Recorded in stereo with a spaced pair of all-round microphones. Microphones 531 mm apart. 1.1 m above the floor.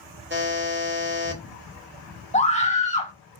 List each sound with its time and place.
0.3 s a buzzer: 20° right (ahead or behind), 1.3 m
2.3 s a scream: 15° left (ahead or behind), 1.5 m